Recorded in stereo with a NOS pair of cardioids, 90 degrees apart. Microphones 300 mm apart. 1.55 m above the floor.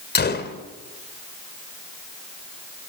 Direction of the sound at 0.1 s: 35° left.